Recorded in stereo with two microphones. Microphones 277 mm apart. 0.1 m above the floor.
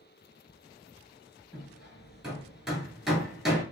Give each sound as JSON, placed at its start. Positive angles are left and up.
{"t": 1.5, "sound": "hammering", "side_deg": 0, "distance_m": 1.8}